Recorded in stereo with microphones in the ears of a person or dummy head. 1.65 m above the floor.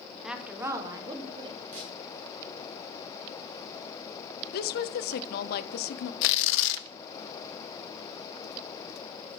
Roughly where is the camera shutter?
Right.